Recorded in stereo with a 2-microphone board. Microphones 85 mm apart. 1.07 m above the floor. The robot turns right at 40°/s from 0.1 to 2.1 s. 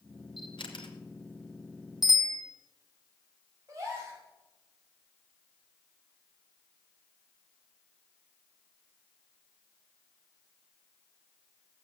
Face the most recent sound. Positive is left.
turn(degrees=-35)  # may be behind; listen again after turning